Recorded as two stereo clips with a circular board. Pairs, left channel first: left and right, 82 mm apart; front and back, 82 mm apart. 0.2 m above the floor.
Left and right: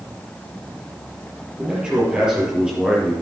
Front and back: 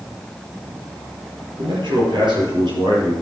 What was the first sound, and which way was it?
A man speaking, 170° right.